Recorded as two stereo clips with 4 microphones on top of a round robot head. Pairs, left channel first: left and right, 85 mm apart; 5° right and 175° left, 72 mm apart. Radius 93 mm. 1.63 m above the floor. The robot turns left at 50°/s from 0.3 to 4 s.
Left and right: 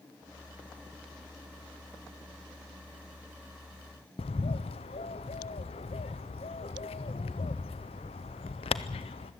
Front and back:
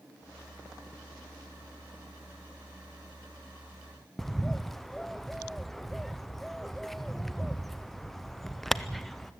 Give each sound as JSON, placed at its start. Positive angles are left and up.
{"t": 4.2, "sound": "a bird", "azimuth_deg": 80, "distance_m": 0.5}